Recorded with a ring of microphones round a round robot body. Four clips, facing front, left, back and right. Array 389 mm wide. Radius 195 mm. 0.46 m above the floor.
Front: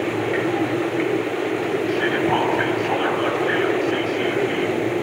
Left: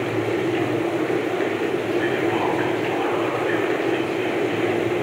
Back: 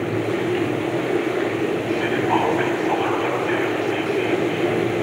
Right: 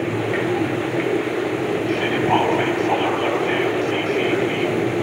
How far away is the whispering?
About 3.5 m.